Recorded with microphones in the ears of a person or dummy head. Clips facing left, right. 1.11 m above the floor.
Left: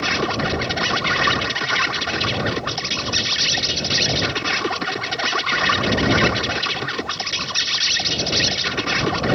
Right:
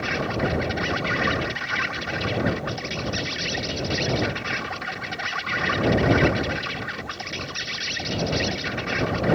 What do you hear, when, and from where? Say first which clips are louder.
0.0 s an insect: left 2 dB; 65° left (ahead or behind)